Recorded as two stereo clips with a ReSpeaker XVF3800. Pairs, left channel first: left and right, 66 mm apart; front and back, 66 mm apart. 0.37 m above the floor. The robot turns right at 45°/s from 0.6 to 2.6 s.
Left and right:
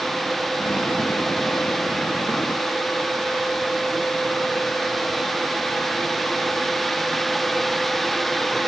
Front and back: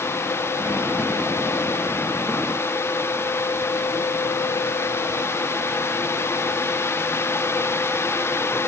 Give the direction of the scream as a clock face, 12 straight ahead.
I don't hear a scream.